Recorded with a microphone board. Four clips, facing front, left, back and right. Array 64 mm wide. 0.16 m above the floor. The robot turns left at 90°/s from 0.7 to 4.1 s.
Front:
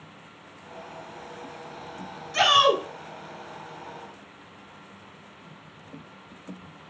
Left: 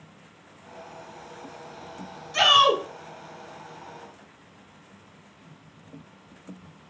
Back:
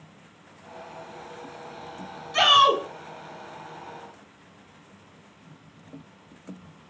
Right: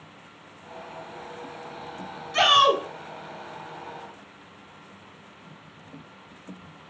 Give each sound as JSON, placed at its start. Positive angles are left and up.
{"t": 2.3, "sound": "a shout", "azimuth_deg": -150, "distance_m": 1.6}